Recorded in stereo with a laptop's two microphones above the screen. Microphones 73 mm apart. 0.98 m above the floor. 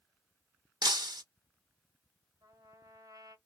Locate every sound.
0.8 s breaking glass: 75° right (ahead or behind), 1.1 m
2.4 s a trumpet: 60° right (ahead or behind), 1.2 m